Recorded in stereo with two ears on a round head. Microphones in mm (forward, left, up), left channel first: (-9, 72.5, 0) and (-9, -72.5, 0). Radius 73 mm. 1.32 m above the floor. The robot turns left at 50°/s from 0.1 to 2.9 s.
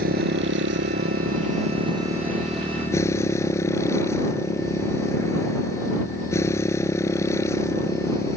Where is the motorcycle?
60° right; by 8.4 s 160° left.